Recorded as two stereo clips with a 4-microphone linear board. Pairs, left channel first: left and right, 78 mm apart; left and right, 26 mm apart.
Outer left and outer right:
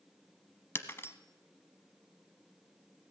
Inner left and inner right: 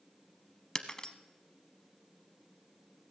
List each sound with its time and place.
0.8 s breaking glass: 35° left (ahead or behind), 0.8 m